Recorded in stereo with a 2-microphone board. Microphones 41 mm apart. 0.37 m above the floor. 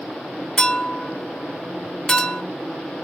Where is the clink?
20° left (ahead or behind), 0.9 m.